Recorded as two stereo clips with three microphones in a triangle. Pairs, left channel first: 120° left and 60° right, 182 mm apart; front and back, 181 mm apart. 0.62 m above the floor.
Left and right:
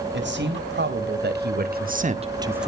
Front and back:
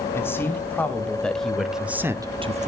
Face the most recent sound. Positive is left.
turn(degrees=-150)